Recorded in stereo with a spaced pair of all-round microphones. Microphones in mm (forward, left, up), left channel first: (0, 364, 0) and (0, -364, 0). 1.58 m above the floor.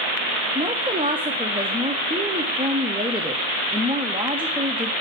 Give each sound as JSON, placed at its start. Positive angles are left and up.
{"t": 0.6, "sound": "a woman speaking", "side_deg": -10, "distance_m": 0.5}